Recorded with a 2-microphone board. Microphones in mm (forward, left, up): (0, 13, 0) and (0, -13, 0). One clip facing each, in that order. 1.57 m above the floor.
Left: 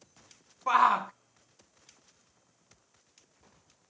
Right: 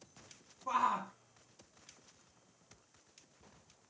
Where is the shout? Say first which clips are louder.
Left 10 dB; 80° left, 0.9 m.